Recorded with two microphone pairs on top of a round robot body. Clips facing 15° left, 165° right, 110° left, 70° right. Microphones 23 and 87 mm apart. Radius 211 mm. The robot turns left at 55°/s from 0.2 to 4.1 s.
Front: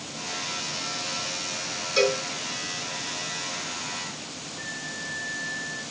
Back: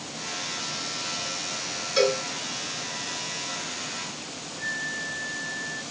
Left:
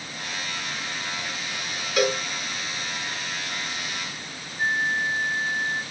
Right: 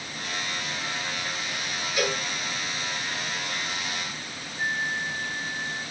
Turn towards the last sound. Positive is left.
turn(degrees=-40)